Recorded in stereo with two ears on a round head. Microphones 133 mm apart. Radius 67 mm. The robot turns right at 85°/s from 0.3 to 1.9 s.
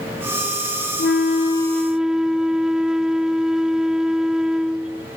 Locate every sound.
1.0 s a flute: 105° left; by 5.1 s 175° right